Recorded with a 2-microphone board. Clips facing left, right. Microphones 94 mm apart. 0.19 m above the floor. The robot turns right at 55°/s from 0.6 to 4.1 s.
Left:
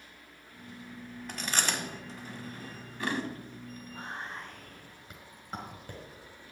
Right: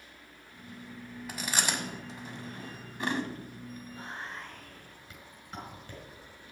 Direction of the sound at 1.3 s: 5° right (ahead or behind).